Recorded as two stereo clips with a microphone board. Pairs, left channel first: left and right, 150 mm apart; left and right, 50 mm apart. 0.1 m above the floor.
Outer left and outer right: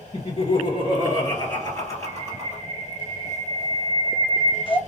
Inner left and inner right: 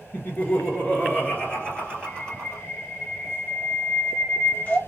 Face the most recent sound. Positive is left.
turn(degrees=35)  # may be behind; listen again after turning